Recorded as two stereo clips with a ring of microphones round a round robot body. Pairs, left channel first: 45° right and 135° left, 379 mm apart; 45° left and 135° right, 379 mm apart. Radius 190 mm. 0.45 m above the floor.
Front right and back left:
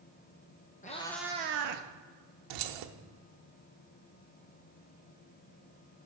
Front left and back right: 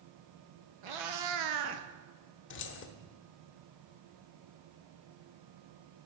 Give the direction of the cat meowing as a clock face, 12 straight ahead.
4 o'clock.